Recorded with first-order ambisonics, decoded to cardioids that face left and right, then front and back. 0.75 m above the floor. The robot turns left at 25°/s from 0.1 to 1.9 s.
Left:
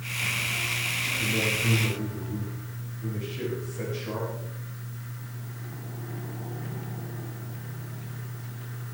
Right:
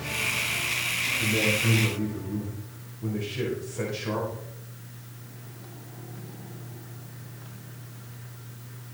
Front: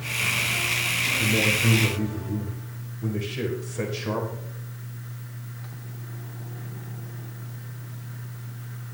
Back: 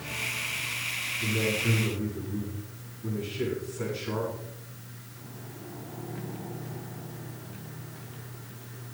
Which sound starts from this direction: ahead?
A man speaking, at 1.2 s.